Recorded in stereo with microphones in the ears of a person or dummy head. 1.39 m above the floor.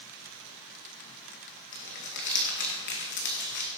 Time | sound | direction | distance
1.7 | crumpling | 60° left (ahead or behind) | 2 m